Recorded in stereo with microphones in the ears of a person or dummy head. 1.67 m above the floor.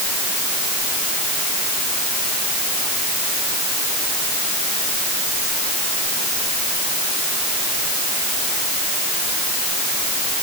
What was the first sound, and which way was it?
Only background noise.